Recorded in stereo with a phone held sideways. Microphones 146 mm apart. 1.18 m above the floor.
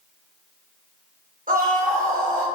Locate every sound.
1.5 s a scream: 80° right, 1.1 m